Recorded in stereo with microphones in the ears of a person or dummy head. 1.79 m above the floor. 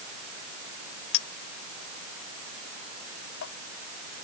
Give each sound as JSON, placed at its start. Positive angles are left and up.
{"t": 1.1, "sound": "a clink", "side_deg": 65}